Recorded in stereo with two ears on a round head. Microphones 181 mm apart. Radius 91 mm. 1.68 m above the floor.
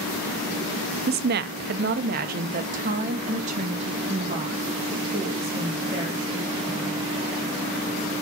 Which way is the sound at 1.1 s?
50° right (ahead or behind).